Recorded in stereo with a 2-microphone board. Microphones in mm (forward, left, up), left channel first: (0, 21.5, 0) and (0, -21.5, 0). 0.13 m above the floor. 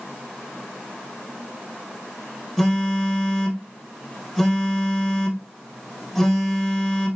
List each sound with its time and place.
2.6 s a phone buzzing: centre (ahead or behind), 2.5 m